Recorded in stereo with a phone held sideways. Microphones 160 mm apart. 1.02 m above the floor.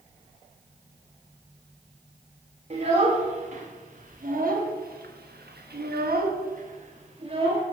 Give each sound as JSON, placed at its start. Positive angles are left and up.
{"t": 2.7, "sound": "a child speaking", "side_deg": -45, "distance_m": 2.5}